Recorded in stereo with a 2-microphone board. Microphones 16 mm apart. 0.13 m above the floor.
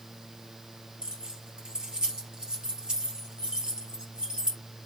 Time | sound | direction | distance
1.0 | keys jangling | 55° right (ahead or behind) | 2 m